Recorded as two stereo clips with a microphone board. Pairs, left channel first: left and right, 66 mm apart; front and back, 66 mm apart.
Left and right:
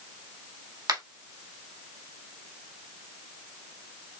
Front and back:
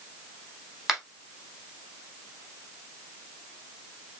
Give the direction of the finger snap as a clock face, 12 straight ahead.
3 o'clock.